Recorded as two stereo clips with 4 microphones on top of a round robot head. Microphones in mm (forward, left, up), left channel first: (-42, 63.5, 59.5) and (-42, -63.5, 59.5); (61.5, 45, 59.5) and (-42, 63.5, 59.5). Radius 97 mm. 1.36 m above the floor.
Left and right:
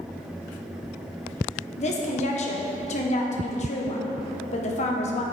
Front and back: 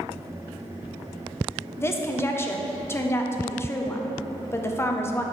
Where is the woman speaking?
55° left, 1.1 m.